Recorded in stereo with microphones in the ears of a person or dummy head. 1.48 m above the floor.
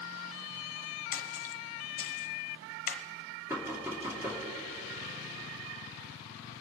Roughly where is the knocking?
Centre.